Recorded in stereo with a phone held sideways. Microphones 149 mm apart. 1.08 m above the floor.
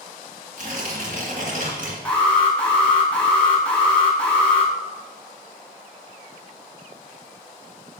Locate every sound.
0.6 s tearing paper: 60° right (ahead or behind), 1.8 m
2.0 s an alarm: 10° left (ahead or behind), 1.7 m